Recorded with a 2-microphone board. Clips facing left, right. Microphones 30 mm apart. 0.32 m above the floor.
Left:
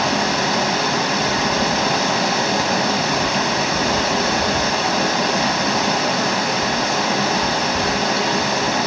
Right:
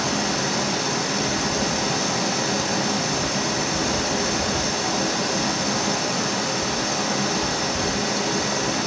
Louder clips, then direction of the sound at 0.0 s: Left 5 dB; 35° left (ahead or behind).